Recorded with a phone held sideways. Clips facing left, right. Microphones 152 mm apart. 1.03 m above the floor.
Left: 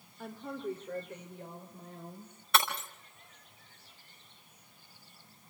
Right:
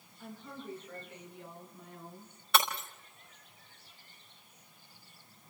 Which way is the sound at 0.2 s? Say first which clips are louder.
Left 7 dB; 65° left (ahead or behind).